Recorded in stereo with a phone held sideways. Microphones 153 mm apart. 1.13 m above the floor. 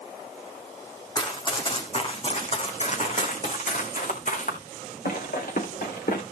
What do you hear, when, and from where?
1.1 s running footsteps: 25° left (ahead or behind), 3 m; by 6.2 s 75° left (ahead or behind), 4.5 m